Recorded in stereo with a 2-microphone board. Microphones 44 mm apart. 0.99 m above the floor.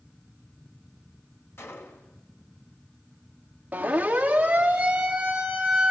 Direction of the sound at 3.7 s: 30° right (ahead or behind).